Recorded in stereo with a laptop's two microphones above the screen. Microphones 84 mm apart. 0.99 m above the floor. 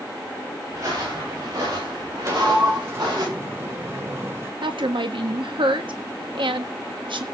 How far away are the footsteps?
About 9 m.